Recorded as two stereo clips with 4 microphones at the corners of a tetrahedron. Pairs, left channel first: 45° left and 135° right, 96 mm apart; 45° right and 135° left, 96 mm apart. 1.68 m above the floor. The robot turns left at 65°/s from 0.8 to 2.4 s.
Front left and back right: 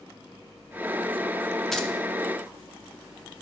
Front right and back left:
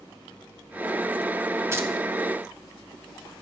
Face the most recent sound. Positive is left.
turn(degrees=80)